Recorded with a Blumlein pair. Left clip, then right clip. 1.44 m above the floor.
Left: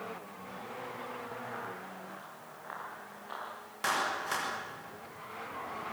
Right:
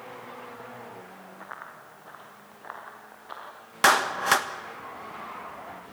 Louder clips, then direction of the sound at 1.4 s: Left 1 dB; 60° right.